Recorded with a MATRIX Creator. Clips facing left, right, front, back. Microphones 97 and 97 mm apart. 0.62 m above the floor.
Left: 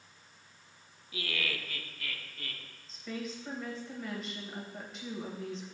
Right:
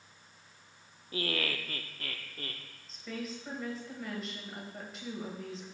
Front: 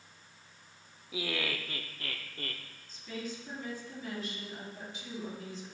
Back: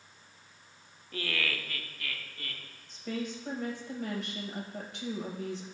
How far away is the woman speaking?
About 2.5 m.